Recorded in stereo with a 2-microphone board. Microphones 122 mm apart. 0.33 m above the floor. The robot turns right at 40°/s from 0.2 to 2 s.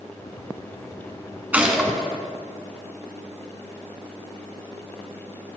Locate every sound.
1.5 s a gunshot: 10° right (ahead or behind), 1.2 m; by 2.0 s 5° left (ahead or behind), 1.2 m